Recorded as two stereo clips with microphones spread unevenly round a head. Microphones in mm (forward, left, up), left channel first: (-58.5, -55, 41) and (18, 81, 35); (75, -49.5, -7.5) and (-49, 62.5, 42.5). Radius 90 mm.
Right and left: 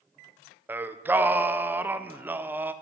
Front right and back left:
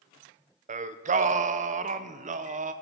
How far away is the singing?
About 0.5 m.